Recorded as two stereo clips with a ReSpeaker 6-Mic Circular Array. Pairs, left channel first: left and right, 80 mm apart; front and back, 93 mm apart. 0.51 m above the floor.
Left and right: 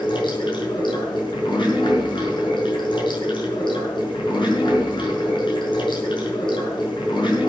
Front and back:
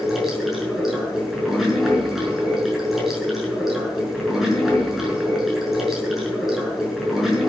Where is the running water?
95° left, 6 m.